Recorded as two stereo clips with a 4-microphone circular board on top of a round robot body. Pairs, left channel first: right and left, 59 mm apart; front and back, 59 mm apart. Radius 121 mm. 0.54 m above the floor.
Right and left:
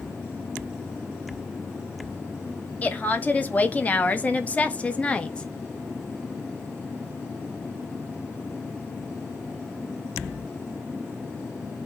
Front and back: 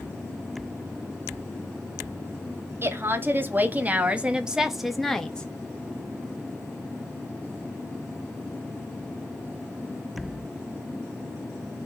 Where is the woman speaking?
145° right, 1.6 m; by 5.5 s 45° right, 1.0 m.